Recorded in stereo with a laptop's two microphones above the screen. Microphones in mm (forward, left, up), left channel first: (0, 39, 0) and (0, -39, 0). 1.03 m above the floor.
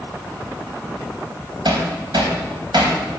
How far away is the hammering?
About 3 m.